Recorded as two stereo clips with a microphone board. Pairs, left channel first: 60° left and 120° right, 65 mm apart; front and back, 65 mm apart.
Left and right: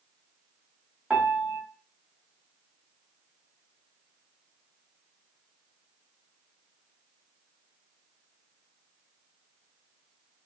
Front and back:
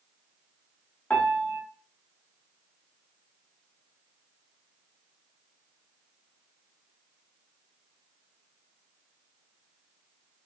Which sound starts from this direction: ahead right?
A piano, at 1.1 s.